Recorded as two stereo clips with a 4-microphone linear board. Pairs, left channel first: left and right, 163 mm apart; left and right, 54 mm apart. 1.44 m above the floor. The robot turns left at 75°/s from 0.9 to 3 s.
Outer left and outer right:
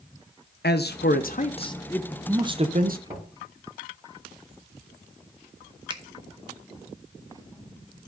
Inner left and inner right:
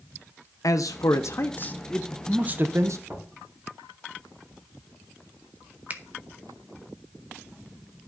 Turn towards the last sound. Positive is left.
turn(degrees=-30)  # may be behind; listen again after turning